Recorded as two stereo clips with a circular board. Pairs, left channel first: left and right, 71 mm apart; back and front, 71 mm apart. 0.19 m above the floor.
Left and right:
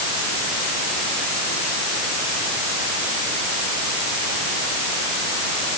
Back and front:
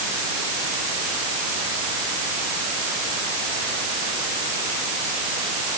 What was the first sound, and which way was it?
Only background noise.